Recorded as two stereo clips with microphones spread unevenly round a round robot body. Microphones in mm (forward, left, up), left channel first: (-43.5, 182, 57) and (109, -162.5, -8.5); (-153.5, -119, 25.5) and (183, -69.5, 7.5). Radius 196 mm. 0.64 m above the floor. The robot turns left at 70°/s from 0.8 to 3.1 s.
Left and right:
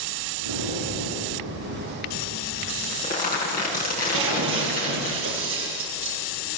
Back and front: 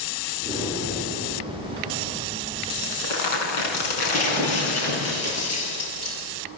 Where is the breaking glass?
125° right, 7 m.